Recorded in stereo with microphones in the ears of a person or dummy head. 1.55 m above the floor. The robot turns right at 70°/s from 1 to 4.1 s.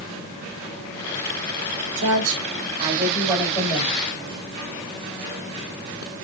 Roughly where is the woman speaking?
Right.